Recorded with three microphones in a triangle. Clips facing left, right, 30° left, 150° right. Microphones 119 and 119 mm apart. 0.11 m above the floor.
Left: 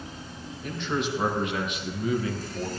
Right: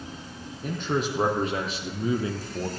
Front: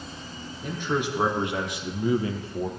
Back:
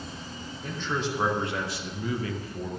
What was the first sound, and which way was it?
A man speaking, 50° right.